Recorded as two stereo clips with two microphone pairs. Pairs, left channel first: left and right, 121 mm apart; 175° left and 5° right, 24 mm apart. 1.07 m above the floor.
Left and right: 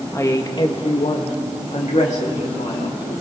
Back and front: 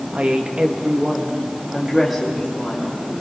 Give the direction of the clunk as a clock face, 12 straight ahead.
I don't hear a clunk.